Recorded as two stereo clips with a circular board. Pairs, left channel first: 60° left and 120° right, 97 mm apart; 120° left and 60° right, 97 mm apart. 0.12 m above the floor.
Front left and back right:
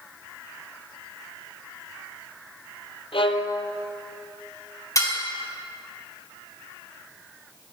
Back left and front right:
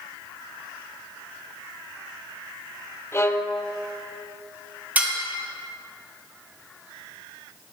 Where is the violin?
60° left, 0.8 m.